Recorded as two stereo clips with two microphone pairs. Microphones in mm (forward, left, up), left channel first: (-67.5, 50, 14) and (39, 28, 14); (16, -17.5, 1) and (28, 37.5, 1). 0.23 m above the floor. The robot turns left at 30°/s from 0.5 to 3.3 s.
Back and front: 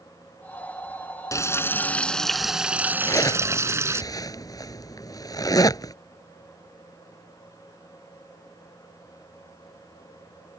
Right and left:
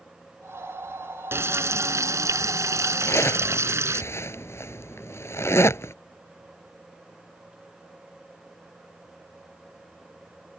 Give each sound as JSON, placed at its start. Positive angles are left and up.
{"t": 1.3, "sound": "frying", "azimuth_deg": 110}
{"t": 3.0, "sound": "a zipper", "azimuth_deg": -130}